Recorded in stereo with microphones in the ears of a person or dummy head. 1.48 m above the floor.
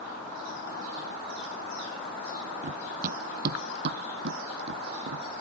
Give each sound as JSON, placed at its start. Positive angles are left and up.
{"t": 2.6, "sound": "running footsteps", "side_deg": -40}